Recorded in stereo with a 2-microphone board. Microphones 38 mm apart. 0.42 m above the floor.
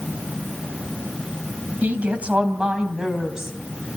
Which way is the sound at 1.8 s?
40° right (ahead or behind).